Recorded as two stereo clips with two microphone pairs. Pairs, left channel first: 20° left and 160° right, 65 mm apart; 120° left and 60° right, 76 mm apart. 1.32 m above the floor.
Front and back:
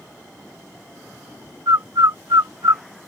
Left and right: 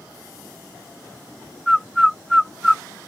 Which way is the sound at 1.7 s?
150° right.